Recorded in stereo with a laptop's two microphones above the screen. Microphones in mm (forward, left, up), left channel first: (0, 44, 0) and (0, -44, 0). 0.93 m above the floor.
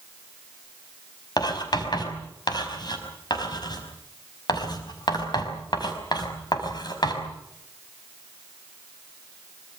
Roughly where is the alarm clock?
I don't hear an alarm clock.